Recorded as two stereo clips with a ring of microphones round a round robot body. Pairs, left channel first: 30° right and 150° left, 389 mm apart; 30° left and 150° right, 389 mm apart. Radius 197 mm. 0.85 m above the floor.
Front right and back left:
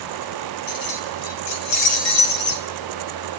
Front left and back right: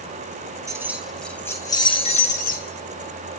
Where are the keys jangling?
70° right, 3.5 m; by 2.7 s 40° right, 5 m.